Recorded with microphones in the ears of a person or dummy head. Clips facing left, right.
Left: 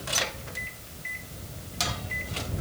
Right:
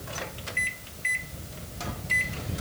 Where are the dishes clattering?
No dishes clattering in this recording.